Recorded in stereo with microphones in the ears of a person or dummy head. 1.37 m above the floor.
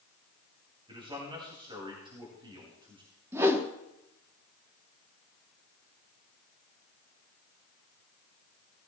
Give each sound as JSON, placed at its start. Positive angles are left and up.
{"t": 0.9, "sound": "a man speaking", "side_deg": -30, "distance_m": 2.5}
{"t": 3.3, "sound": "a whoosh", "side_deg": -10, "distance_m": 1.0}